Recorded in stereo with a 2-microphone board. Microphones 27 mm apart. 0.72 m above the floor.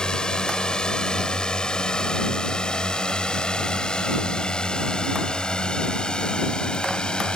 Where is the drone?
30° left (ahead or behind); by 7.4 s 35° left (ahead or behind).